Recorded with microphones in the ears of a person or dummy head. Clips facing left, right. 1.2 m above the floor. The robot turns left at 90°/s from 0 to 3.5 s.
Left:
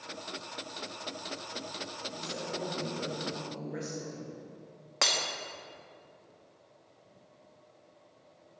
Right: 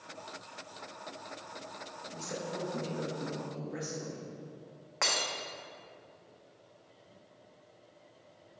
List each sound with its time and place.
2.1 s a woman speaking: 50° right, 1.6 m; by 4.3 s 175° right, 1.6 m
5.0 s breaking glass: 55° left (ahead or behind), 1.0 m